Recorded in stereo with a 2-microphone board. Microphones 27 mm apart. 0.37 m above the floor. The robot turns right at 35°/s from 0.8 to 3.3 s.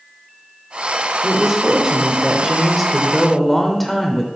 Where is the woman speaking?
20° right (ahead or behind), 0.8 m; by 4.3 s 5° left (ahead or behind), 0.8 m.